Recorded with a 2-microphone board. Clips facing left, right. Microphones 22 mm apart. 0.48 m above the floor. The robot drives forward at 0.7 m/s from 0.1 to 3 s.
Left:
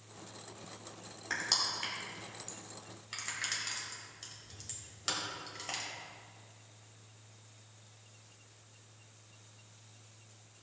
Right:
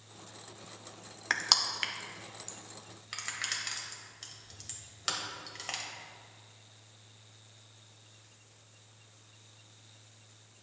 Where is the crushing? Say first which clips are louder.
Right 5 dB; 45° right (ahead or behind), 0.7 m; by 5.8 s 20° right (ahead or behind), 1.5 m.